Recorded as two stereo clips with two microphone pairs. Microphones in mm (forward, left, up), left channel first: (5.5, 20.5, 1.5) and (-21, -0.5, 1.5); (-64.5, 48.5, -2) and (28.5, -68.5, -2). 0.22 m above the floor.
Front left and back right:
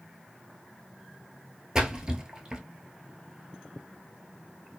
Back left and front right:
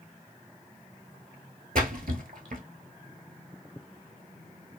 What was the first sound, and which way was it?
A splash, 70° right.